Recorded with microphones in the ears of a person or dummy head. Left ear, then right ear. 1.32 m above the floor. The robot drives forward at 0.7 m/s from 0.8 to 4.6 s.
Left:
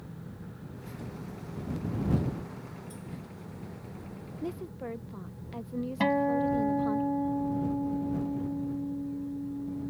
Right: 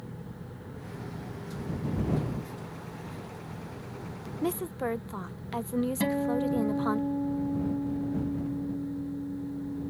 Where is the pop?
No pop in this recording.